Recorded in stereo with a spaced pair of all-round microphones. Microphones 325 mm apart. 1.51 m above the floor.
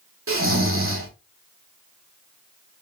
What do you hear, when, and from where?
0.3 s snoring: 40° right (ahead or behind), 0.7 m